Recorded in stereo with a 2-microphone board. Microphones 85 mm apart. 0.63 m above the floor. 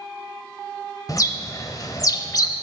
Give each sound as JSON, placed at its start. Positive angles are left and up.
{"t": 1.1, "sound": "a bird", "side_deg": 45, "distance_m": 0.7}